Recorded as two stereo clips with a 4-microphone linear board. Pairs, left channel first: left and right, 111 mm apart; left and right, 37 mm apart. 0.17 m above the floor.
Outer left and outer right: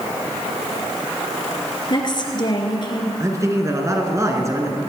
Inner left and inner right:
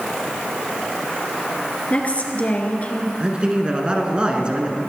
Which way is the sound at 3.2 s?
25° right (ahead or behind).